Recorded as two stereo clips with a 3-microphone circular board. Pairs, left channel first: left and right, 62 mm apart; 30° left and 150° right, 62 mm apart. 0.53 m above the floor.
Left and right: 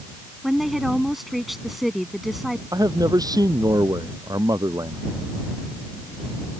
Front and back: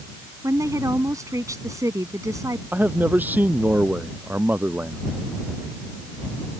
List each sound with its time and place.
0.4 s a woman speaking: straight behind
2.7 s a man speaking: 85° right